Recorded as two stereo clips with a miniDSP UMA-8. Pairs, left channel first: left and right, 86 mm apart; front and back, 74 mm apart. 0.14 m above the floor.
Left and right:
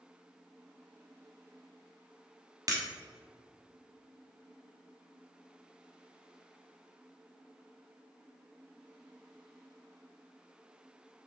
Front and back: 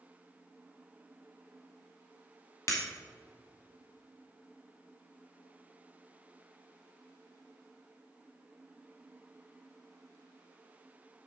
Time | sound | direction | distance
2.7 | breaking glass | 45° right | 2.5 m